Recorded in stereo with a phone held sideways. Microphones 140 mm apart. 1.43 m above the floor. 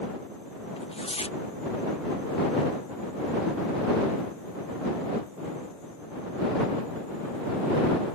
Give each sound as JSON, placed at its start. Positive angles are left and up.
{"t": 0.8, "sound": "tearing paper", "side_deg": 45}